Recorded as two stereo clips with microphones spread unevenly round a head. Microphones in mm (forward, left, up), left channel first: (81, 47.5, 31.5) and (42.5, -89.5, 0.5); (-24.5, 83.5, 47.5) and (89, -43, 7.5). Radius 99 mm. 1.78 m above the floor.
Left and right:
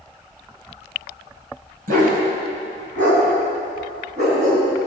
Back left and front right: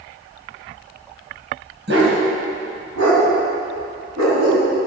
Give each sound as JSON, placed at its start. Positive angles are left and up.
{"t": 1.9, "sound": "a dog barking", "azimuth_deg": -85, "distance_m": 3.0}